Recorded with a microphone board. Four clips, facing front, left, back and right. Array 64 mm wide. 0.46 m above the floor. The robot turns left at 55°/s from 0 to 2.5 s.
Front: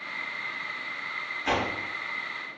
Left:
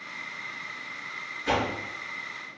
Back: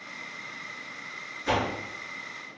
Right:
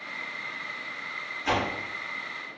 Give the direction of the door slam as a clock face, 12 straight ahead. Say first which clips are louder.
Even, back 1 dB; 1 o'clock.